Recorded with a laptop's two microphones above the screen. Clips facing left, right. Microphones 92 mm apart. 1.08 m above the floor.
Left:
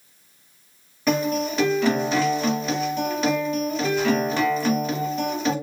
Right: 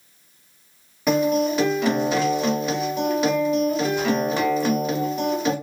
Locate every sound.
1.1 s a guitar: 10° right (ahead or behind), 1.4 m